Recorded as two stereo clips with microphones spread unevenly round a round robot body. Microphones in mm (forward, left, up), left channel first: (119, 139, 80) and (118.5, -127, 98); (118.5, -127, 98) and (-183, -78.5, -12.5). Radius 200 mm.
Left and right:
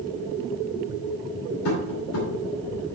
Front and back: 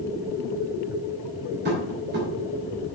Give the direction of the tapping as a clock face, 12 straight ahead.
8 o'clock.